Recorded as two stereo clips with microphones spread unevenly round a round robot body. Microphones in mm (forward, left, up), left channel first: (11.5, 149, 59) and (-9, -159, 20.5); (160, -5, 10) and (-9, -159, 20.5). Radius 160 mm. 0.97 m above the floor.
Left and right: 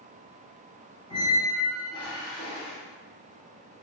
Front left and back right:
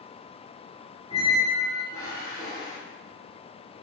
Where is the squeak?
155° left, 0.7 m.